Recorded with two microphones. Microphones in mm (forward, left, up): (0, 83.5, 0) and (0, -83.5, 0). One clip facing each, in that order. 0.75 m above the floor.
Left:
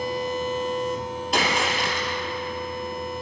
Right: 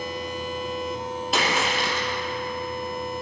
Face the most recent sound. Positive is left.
turn(degrees=0)  # may be behind; listen again after turning